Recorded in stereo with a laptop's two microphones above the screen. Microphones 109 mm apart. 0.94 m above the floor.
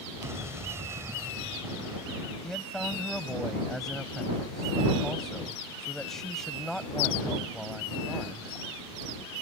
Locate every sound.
0.2 s an explosion: 25° right (ahead or behind)
2.4 s a man speaking: 5° left (ahead or behind)